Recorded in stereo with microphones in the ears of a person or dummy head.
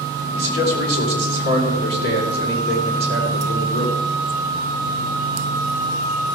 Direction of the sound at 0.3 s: 60° left (ahead or behind).